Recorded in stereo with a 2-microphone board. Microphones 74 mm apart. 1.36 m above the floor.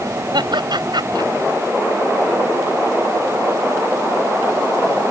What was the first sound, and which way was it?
Laughter, 80° right.